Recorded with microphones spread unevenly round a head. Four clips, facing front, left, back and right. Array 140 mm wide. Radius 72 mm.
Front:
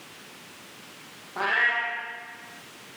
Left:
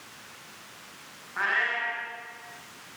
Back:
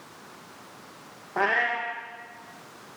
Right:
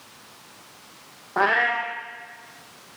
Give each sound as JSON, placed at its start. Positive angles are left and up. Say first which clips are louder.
{"t": 1.4, "sound": "a cat meowing", "louder": "right 8 dB, back 1 dB", "azimuth_deg": -110, "distance_m": 4.5}